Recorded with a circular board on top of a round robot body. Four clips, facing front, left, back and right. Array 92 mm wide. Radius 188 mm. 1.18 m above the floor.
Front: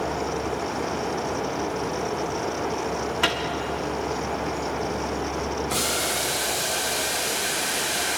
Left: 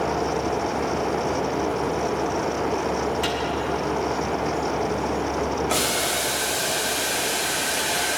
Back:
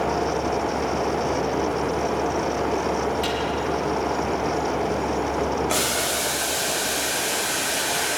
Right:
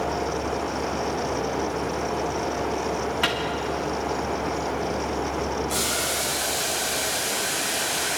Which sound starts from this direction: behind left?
Boiling, at 5.7 s.